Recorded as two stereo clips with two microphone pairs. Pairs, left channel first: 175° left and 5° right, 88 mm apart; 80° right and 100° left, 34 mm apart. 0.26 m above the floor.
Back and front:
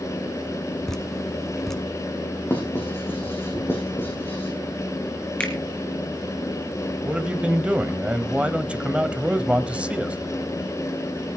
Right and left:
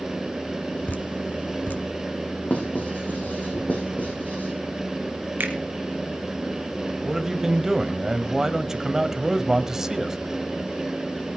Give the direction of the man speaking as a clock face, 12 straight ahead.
10 o'clock.